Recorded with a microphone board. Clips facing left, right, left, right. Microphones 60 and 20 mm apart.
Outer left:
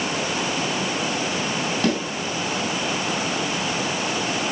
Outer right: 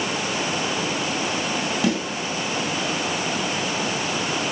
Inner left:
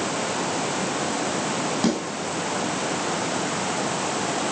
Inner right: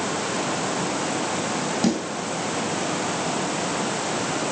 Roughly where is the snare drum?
Centre.